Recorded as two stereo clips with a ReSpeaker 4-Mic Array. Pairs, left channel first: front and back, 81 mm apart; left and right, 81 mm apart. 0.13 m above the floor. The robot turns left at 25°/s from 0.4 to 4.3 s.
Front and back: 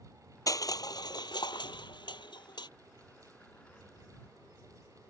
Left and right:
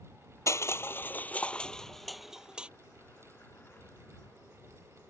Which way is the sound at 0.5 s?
40° left.